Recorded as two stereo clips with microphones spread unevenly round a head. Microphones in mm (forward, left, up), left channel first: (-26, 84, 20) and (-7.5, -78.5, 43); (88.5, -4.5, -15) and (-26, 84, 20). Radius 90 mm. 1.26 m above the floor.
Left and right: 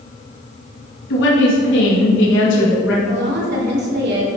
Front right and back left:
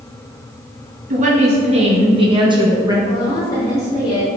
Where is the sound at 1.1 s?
105° left, 1.8 m; by 3.0 s 75° left, 2.0 m.